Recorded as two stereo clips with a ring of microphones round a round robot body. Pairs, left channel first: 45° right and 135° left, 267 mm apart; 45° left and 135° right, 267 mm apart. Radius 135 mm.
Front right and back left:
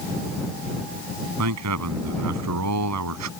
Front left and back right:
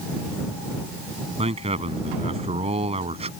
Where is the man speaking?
155° left.